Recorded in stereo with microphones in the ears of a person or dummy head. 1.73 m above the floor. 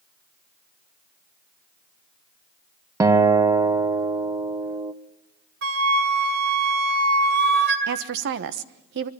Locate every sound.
3.0 s a guitar: 15° right (ahead or behind), 1.1 m
5.6 s a flute: 60° right (ahead or behind), 3 m
7.9 s a woman speaking: 60° right (ahead or behind), 1.1 m